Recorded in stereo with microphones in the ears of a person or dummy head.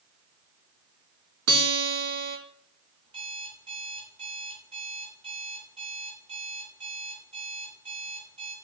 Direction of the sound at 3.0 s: 25° right (ahead or behind).